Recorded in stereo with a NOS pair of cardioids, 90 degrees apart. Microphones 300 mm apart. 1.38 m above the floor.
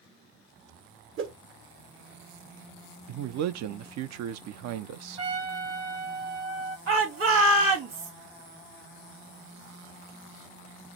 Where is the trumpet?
55° right, 1.8 m.